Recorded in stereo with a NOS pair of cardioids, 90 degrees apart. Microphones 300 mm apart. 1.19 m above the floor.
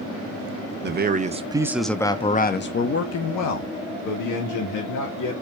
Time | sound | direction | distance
0.8 | a man speaking | 35° right | 1.2 m